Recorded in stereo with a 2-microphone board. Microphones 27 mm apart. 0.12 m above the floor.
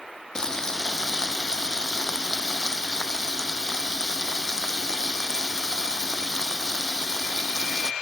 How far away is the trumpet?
I don't hear a trumpet.